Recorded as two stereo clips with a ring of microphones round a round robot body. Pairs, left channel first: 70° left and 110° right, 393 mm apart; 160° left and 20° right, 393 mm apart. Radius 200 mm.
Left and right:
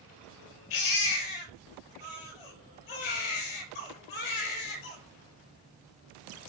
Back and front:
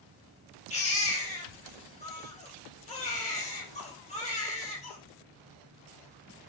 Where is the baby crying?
85° left, 4 m.